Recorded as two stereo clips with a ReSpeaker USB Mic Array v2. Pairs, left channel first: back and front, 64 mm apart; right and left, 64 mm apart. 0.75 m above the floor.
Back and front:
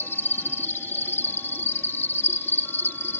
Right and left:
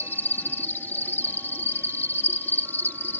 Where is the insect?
140° right.